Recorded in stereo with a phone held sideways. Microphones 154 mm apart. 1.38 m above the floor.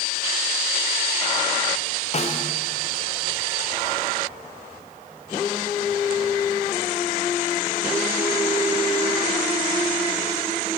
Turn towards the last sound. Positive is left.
turn(degrees=45)  # may be behind; listen again after turning